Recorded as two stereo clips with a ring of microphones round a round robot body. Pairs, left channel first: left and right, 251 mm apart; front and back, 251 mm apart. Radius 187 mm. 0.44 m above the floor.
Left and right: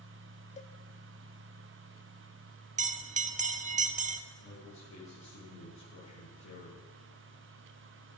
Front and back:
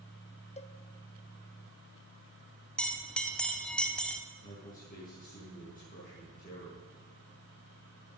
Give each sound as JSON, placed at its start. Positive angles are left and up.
{"t": 0.6, "sound": "a cowbell", "azimuth_deg": 45, "distance_m": 0.8}
{"t": 2.8, "sound": "a bell", "azimuth_deg": -85, "distance_m": 0.9}
{"t": 4.4, "sound": "a man speaking", "azimuth_deg": 55, "distance_m": 6.0}